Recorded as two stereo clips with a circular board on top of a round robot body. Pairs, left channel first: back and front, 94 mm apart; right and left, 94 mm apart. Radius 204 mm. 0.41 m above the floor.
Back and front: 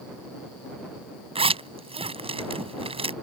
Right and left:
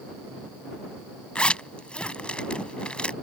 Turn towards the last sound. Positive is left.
turn(degrees=-10)